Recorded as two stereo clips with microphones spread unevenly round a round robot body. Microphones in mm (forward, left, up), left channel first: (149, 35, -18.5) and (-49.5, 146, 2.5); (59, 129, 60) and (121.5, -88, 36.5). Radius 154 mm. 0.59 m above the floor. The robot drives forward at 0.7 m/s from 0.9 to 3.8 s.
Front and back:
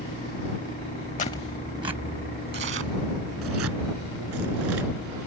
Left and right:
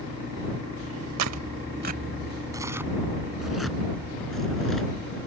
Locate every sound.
1.2 s tearing paper: 90° right; by 4.9 s 165° right